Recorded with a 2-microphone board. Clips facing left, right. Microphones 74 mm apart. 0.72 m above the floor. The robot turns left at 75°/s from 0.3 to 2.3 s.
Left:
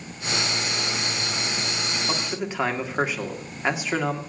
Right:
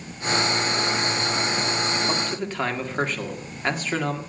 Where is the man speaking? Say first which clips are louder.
Right 2 dB; 5° right (ahead or behind), 1.8 m; by 4.2 s 5° left (ahead or behind), 1.8 m.